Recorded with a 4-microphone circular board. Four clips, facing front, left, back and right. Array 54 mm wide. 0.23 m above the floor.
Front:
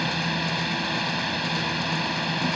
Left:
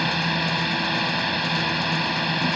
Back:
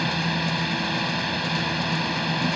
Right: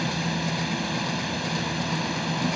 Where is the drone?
95° left.